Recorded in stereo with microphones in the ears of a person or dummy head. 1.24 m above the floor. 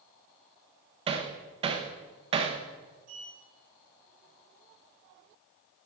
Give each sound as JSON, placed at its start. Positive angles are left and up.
{"t": 1.1, "sound": "hammering", "side_deg": -35, "distance_m": 0.7}
{"t": 3.1, "sound": "a sliding door", "side_deg": -45, "distance_m": 1.6}